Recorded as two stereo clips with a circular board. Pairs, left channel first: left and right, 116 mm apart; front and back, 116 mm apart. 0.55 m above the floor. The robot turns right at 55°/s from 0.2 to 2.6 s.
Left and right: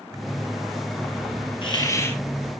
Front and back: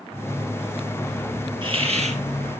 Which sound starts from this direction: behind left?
A hiss, at 1.6 s.